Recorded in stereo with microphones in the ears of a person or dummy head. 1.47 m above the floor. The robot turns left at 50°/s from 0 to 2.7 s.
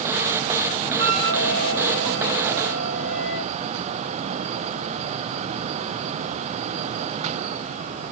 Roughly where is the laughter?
I don't hear laughter.